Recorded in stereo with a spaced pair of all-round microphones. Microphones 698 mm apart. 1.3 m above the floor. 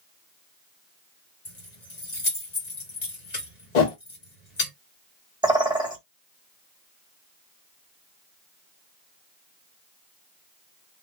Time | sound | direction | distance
1.4 | keys jangling | 65° left (ahead or behind) | 1.5 m
3.8 | a whoosh | 75° left (ahead or behind) | 0.9 m
5.4 | a bird | 5° right (ahead or behind) | 1.0 m